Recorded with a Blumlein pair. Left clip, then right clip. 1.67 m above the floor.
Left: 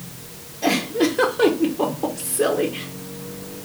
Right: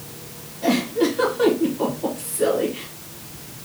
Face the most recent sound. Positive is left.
turn(degrees=65)